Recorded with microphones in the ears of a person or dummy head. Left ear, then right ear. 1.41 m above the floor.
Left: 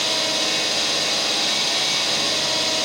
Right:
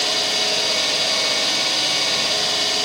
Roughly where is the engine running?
Centre.